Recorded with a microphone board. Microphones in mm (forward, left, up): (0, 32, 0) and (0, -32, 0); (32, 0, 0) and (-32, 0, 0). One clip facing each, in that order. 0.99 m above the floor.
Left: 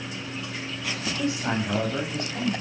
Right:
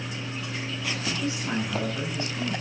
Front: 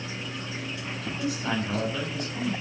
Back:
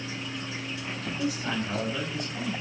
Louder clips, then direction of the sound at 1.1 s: Left 4 dB, front 1 dB; 80° left.